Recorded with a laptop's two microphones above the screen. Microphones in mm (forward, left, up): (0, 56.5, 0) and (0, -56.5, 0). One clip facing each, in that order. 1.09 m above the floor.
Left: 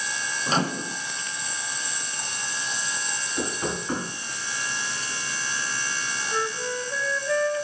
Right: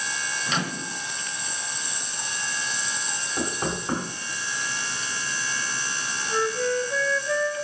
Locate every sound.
0.5 s a microwave: 35° left (ahead or behind), 0.6 m
3.4 s knocking: 45° right (ahead or behind), 5 m
6.3 s a flute: 5° right (ahead or behind), 3.5 m